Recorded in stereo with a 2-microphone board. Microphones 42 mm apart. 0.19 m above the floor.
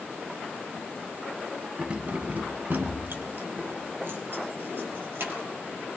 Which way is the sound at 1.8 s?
25° right (ahead or behind).